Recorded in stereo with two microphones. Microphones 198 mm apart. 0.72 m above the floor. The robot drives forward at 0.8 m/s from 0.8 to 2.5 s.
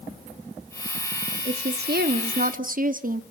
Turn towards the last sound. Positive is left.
turn(degrees=-45)  # may be behind; listen again after turning